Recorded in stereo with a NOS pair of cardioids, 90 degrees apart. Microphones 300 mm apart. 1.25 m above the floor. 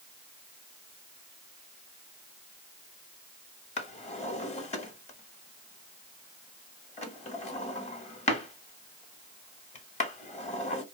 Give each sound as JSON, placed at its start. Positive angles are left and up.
{"t": 3.8, "sound": "a drawer", "azimuth_deg": 20, "distance_m": 1.2}